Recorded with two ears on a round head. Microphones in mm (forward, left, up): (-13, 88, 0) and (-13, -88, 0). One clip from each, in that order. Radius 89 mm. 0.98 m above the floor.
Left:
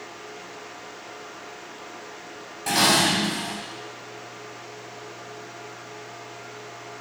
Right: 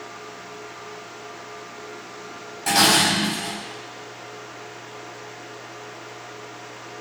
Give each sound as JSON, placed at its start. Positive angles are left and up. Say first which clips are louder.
{"t": 2.7, "sound": "dishes clattering", "louder": "right 2 dB", "side_deg": -15, "distance_m": 3.5}